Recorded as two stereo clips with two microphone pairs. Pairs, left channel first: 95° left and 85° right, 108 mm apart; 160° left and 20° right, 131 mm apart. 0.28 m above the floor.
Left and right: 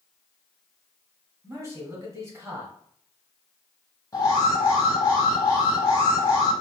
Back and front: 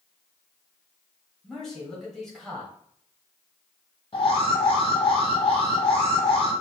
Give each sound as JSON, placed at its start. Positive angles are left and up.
{"t": 1.4, "sound": "a man speaking", "azimuth_deg": -115, "distance_m": 1.3}
{"t": 4.1, "sound": "an alarm", "azimuth_deg": 140, "distance_m": 1.4}